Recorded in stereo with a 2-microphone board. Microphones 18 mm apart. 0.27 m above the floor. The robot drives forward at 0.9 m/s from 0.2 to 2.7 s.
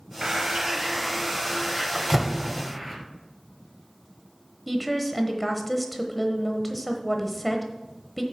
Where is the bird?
45° right (ahead or behind), 0.5 m; by 3.0 s 10° right (ahead or behind), 2 m.